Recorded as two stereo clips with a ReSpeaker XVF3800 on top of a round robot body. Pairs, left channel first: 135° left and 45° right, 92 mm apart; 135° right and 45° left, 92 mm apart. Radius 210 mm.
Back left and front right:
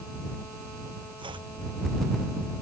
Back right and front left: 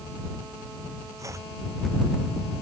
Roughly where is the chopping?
Ahead.